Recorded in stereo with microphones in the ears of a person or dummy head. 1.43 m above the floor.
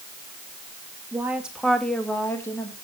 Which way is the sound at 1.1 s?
15° right (ahead or behind).